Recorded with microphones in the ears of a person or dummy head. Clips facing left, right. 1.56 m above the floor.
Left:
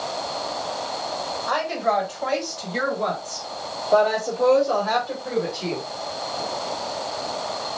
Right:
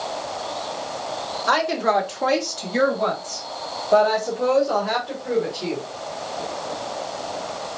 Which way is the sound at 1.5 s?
75° right (ahead or behind).